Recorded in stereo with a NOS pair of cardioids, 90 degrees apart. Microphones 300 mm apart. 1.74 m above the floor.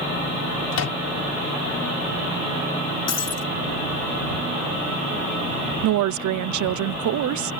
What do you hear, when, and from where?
0.7 s a microwave: 55° left
3.1 s breaking glass: 55° left
5.8 s a woman speaking: 70° right